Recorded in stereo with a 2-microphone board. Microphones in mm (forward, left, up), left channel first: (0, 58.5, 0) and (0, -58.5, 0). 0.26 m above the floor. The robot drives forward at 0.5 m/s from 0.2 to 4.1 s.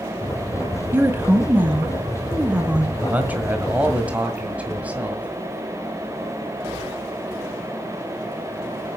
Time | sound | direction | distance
0.9 | a woman speaking | 20° right (ahead or behind) | 1.4 m
3.0 | a man speaking | 15° right (ahead or behind) | 1.6 m